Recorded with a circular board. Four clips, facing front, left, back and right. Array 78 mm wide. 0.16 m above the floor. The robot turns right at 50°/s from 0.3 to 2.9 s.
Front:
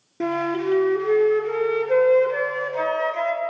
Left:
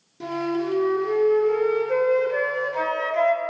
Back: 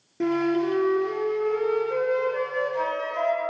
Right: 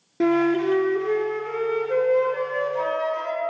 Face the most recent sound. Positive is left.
turn(degrees=55)